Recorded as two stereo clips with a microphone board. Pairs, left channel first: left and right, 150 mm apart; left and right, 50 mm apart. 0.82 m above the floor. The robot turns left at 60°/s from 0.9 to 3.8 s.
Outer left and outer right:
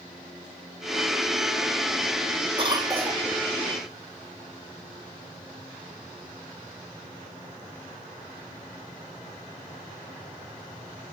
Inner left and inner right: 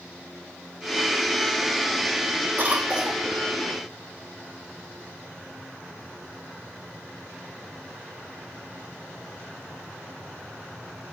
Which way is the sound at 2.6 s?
140° right.